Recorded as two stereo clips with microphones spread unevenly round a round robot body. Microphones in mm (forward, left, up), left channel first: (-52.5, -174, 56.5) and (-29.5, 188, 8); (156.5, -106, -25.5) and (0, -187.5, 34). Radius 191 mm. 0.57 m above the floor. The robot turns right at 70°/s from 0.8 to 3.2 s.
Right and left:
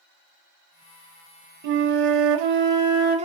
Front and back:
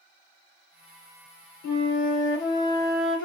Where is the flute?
50° left, 0.6 m; by 3.3 s 160° left, 0.6 m.